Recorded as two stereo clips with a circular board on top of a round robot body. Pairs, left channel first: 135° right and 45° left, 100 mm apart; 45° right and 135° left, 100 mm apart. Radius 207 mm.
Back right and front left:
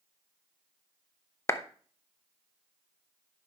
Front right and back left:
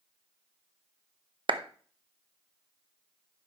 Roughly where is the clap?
Behind.